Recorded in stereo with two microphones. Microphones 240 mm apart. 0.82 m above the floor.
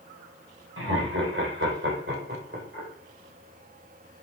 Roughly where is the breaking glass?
I don't hear breaking glass.